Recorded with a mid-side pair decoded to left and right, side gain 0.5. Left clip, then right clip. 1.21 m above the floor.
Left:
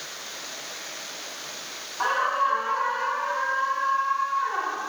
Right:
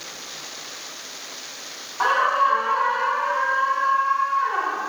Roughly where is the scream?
Ahead right.